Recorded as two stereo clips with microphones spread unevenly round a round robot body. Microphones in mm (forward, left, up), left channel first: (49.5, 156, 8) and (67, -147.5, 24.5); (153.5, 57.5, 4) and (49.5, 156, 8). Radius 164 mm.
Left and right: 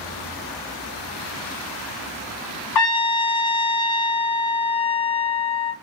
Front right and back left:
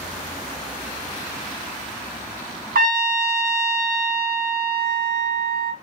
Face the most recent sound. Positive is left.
turn(degrees=130)